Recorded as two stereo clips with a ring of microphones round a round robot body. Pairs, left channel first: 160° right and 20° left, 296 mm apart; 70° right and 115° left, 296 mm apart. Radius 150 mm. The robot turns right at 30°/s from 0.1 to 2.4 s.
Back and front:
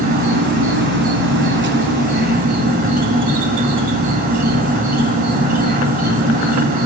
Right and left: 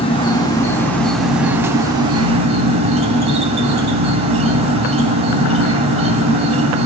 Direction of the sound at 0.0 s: 10° right.